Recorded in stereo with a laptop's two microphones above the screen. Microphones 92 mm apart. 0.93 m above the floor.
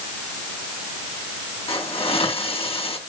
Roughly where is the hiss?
Left.